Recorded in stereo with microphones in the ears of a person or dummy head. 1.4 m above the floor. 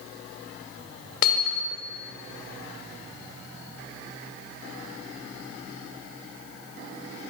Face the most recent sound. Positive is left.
turn(degrees=55)  # may be behind; listen again after turning